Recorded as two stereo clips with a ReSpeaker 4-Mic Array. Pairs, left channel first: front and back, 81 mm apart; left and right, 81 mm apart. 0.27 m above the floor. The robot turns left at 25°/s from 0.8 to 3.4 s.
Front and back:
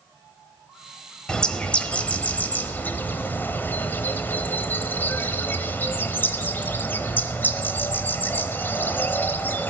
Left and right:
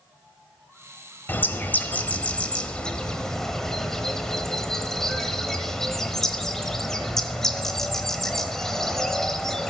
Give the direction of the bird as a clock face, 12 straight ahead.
10 o'clock.